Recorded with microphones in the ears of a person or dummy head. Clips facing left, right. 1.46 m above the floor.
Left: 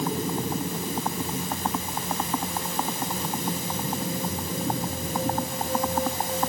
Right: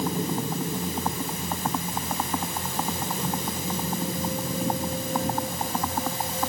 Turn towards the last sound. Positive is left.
No sound to turn to.